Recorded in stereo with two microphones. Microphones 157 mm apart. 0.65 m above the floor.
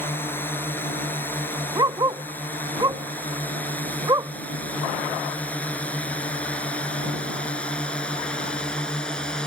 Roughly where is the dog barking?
Right.